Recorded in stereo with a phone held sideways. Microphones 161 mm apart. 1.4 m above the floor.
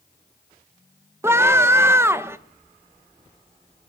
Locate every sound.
1.2 s a scream: 15° right (ahead or behind), 1.4 m